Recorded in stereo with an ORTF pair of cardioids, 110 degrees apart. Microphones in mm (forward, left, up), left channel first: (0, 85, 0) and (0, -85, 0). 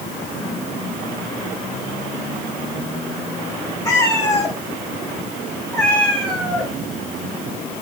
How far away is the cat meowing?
About 6 m.